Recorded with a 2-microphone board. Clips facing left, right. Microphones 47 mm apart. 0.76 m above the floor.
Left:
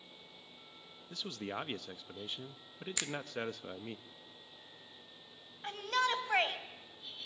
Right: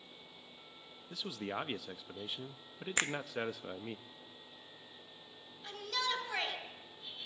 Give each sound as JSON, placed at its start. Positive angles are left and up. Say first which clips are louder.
{"t": 1.1, "sound": "a man speaking", "louder": "right 1 dB", "side_deg": -5, "distance_m": 0.7}
{"t": 3.0, "sound": "a finger snap", "louder": "right 6 dB", "side_deg": -40, "distance_m": 0.6}
{"t": 5.6, "sound": "a shout", "louder": "left 5 dB", "side_deg": 40, "distance_m": 4.5}